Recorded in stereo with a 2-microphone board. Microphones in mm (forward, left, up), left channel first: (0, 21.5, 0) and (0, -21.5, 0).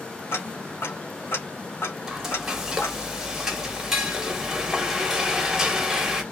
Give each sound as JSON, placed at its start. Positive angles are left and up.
{"t": 0.3, "sound": "ticking", "side_deg": 70, "distance_m": 1.4}
{"t": 2.1, "sound": "frying", "side_deg": -10, "distance_m": 1.1}